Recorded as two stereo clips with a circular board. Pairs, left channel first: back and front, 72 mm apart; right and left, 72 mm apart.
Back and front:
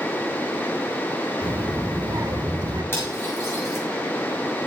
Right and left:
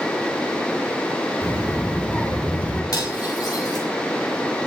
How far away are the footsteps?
No footsteps in this recording.